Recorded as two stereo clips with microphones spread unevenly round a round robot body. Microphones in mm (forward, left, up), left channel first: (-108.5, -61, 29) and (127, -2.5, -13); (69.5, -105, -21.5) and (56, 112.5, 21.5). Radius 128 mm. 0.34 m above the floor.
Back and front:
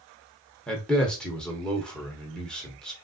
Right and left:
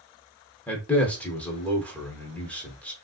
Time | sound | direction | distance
0.7 | a man speaking | 55° right | 0.8 m